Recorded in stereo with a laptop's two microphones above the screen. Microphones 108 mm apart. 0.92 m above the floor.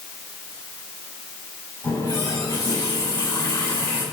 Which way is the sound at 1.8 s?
20° left (ahead or behind).